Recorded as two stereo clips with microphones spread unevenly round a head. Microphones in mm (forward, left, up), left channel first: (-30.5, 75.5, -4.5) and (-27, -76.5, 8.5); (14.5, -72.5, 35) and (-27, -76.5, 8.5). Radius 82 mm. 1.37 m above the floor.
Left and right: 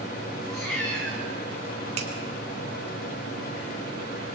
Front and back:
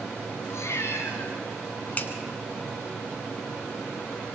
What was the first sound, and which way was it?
A cat meowing, 15° left.